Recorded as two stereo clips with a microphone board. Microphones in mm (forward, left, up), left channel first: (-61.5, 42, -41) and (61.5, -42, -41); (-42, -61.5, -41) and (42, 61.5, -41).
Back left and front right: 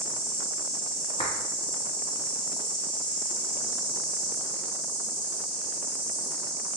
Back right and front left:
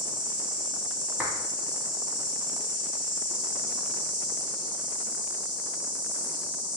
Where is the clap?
130° left, 1.3 m.